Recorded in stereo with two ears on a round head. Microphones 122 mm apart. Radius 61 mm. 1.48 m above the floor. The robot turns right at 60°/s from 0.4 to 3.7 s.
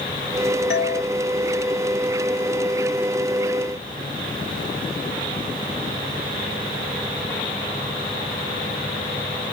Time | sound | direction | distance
0.7 | a doorbell | 85° left | ?